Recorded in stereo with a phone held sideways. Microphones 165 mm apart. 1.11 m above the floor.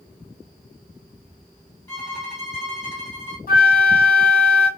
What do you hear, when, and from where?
1.9 s a violin: 15° left (ahead or behind), 1.4 m
3.5 s a flute: 65° left (ahead or behind), 1.1 m